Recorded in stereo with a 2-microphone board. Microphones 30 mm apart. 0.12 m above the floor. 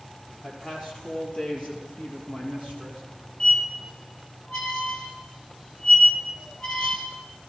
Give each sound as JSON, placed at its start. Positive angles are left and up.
{"t": 0.4, "sound": "a man speaking", "side_deg": 35, "distance_m": 4.0}
{"t": 3.4, "sound": "a squeak", "side_deg": 30, "distance_m": 2.0}